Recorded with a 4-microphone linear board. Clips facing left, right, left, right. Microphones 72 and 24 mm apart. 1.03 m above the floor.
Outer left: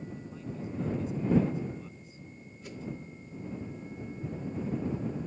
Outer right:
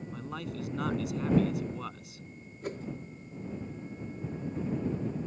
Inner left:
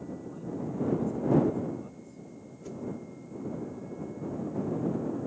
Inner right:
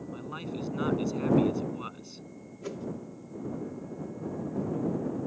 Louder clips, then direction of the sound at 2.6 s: Outer right 5 dB, inner right 2 dB; 50° right (ahead or behind).